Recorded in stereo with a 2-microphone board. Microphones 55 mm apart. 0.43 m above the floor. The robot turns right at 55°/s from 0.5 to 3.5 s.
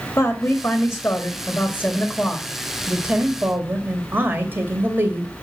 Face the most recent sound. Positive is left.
turn(degrees=-130)